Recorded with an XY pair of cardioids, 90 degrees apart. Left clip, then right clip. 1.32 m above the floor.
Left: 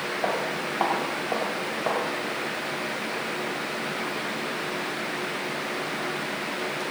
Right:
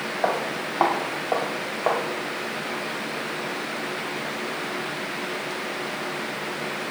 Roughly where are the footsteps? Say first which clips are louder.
Right 3 dB; ahead right.